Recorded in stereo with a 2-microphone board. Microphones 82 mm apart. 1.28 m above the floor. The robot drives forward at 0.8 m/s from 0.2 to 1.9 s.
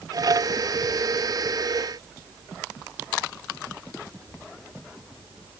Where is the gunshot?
I don't hear a gunshot.